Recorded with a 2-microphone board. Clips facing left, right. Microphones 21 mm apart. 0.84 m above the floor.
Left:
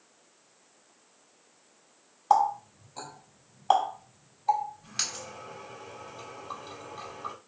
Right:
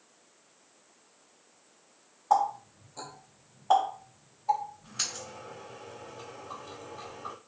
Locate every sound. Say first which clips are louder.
2.3 s a running tap: left 2 dB; 80° left, 1.6 m